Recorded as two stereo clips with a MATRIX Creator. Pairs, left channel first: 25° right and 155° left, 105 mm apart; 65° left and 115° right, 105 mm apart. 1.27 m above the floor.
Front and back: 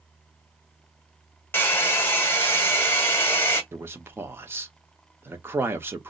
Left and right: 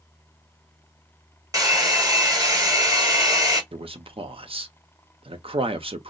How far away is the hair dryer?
About 1.2 m.